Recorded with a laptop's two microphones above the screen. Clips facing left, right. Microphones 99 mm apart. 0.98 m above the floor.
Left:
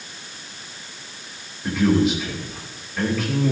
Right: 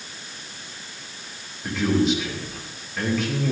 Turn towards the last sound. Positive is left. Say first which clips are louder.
# left 3 dB
turn(degrees=5)  # may be behind; listen again after turning